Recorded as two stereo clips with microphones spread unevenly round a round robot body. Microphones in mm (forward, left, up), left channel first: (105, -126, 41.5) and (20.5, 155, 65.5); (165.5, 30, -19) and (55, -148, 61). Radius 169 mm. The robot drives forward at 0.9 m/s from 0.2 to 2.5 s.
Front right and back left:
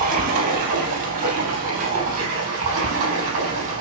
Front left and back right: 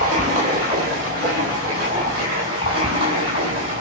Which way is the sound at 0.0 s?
175° left.